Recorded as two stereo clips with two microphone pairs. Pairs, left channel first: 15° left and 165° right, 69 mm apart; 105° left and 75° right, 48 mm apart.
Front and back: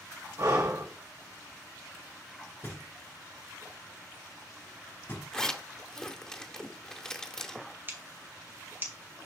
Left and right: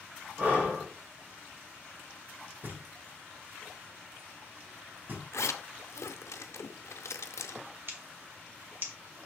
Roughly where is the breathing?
Behind right.